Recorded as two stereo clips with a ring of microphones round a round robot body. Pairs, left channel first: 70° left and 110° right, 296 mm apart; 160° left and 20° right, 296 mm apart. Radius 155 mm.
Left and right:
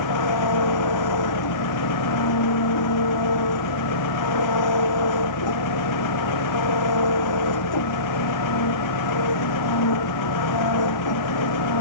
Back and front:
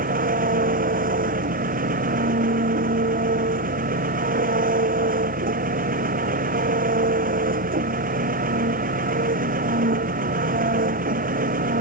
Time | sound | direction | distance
0.0 | an engine running | 40° left | ?